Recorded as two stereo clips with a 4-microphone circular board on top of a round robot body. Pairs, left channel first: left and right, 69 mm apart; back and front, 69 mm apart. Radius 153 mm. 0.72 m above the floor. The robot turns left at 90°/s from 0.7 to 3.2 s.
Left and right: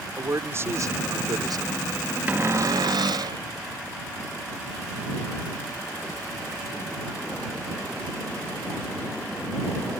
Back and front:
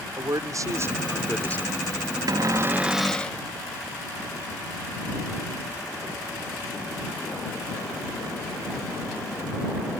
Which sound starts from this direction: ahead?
A cupboard door, at 2.3 s.